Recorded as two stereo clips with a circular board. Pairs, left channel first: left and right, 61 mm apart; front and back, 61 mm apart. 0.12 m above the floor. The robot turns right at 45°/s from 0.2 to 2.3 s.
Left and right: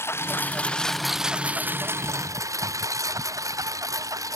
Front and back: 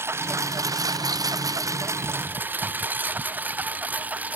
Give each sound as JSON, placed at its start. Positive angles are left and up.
{"t": 0.0, "sound": "a lawn mower", "azimuth_deg": 135}